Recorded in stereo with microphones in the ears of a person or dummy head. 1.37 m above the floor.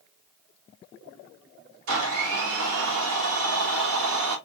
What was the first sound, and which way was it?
A blender, 80° right.